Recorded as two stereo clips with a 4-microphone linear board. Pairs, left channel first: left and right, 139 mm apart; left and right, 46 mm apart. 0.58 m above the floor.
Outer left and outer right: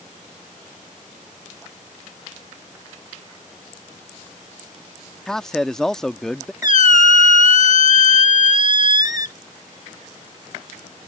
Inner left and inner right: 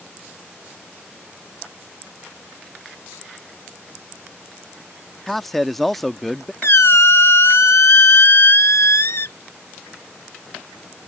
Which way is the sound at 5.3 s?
5° left (ahead or behind).